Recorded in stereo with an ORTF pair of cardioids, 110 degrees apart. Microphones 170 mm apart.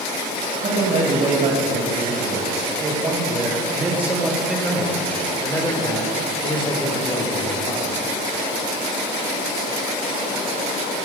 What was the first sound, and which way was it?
A man speaking, 50° right.